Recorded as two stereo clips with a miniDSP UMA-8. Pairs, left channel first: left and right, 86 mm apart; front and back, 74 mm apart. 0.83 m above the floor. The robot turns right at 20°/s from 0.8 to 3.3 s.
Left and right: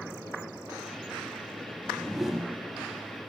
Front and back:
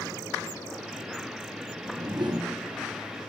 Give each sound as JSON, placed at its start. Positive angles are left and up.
{"t": 1.7, "sound": "a whoosh", "azimuth_deg": 170, "distance_m": 0.7}